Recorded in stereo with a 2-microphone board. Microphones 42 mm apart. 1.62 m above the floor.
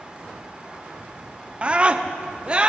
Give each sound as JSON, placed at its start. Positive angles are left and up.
{"t": 1.6, "sound": "a scream", "side_deg": -25, "distance_m": 0.9}